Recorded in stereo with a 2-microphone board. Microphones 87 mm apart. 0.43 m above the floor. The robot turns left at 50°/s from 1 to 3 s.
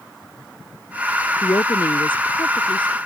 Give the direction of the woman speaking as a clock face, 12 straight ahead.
7 o'clock.